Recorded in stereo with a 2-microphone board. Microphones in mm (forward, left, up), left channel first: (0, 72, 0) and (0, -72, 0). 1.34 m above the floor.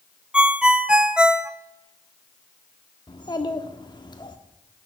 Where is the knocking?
I don't hear knocking.